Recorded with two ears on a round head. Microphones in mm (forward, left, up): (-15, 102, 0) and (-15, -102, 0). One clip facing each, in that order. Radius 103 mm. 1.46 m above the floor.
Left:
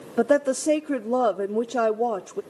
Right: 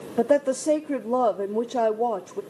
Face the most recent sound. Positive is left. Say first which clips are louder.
# even
turn(degrees=5)  # may be behind; listen again after turning